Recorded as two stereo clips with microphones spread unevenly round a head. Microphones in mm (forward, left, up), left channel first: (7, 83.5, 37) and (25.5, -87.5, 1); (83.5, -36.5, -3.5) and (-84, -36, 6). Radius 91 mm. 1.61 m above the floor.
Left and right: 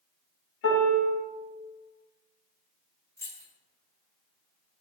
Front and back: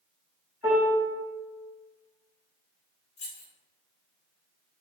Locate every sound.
0.6 s a piano: 105° left, 0.7 m
3.2 s keys jangling: 40° left, 0.7 m